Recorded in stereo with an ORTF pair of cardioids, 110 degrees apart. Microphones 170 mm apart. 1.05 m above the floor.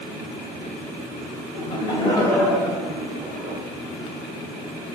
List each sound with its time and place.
1.6 s laughter: 40° left, 2.0 m; by 3.6 s 70° right, 1.6 m